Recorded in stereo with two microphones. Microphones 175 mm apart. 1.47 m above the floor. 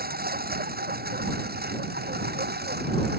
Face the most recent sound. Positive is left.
turn(degrees=-70)  # may be behind; listen again after turning